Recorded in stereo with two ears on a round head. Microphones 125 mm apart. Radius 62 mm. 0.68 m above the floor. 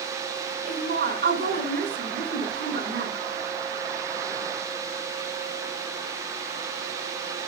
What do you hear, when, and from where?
0.7 s a woman speaking: 70° right (ahead or behind), 3 m